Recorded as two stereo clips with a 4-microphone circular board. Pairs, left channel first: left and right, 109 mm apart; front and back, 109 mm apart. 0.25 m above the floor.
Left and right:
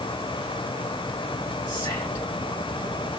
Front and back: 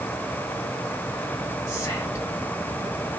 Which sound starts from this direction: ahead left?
Whispering, at 1.7 s.